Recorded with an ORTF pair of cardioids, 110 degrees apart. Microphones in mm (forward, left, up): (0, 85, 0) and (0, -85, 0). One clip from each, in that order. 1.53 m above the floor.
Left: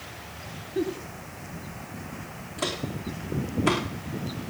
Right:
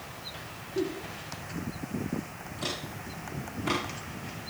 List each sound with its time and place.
0.8 s a giggle: 25° left, 2.5 m
2.6 s footsteps: 60° left, 5 m